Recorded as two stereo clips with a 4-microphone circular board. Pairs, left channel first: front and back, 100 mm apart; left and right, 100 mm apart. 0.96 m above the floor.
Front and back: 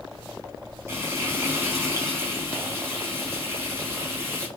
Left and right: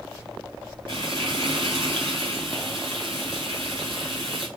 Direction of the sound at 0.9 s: 120° right.